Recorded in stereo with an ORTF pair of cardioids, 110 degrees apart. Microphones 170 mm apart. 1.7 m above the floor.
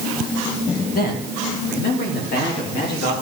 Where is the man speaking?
60° left, 2 m; by 3.1 s 75° left, 5 m.